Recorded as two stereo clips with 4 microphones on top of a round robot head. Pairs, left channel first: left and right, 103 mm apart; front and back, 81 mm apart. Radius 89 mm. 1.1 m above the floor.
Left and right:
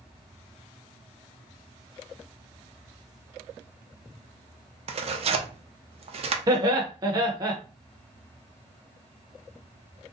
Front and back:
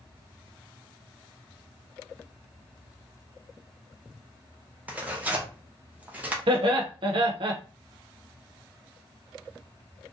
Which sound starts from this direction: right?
Tearing paper, at 4.9 s.